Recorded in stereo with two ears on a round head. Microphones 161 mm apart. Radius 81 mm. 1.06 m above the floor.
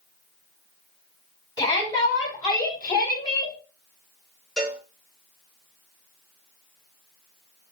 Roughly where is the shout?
Left.